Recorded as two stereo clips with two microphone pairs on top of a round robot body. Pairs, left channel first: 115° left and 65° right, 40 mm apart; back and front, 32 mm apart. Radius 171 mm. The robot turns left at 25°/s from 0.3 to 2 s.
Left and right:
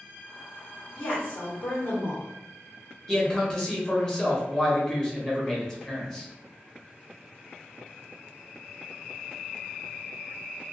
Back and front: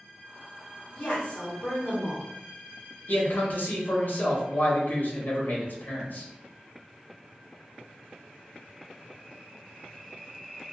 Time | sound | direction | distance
0.9 | a woman speaking | 150° left | 1.8 m
3.1 | a man speaking | 175° left | 1.2 m